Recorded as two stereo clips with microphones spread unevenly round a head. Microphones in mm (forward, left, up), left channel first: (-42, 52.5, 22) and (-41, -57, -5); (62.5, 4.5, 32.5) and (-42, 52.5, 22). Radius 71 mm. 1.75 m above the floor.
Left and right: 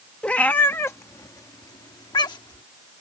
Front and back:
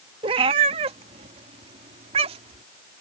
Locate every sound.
0.2 s a cat meowing: 140° left; by 2.6 s 120° left